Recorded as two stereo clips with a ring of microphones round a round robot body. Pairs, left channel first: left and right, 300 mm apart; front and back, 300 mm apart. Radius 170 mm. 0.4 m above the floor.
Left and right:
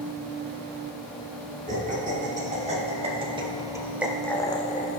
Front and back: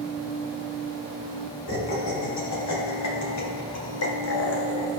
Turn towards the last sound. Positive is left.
turn(degrees=70)